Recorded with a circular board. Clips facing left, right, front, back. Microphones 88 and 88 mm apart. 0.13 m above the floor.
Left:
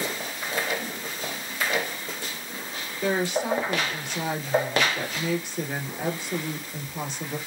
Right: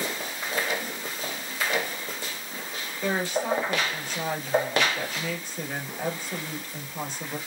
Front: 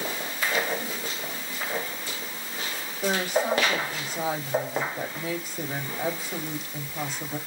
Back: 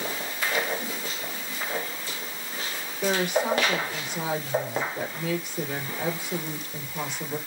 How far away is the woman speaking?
About 2.5 m.